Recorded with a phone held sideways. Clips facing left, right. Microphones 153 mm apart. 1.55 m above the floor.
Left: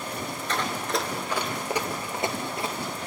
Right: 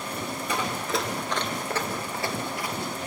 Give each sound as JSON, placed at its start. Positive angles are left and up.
{"t": 0.5, "sound": "running footsteps", "side_deg": -10, "distance_m": 1.6}